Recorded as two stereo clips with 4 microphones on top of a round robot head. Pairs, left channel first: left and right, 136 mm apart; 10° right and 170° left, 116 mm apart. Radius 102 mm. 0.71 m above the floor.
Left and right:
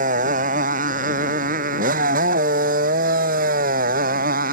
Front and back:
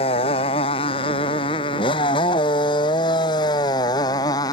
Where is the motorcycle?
55° right; by 4.5 s 75° right.